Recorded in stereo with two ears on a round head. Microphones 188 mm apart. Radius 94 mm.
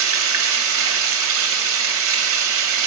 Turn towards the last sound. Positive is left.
turn(degrees=-70)  # may be behind; listen again after turning